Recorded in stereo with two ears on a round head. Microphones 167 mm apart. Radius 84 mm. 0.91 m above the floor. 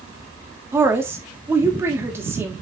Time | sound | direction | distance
0.7 | a woman speaking | 15° right (ahead or behind) | 1.4 m